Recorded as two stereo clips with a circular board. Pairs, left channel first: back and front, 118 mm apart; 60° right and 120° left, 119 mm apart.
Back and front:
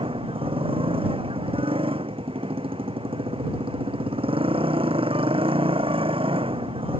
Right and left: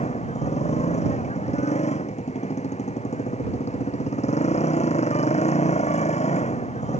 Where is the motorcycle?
40° right.